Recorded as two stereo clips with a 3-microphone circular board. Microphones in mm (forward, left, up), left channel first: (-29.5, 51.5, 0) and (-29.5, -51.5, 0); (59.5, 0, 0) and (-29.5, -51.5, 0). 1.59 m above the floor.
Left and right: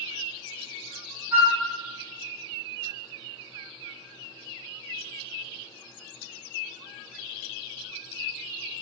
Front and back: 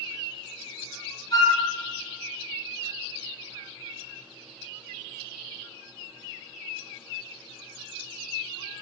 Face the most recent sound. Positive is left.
turn(degrees=-20)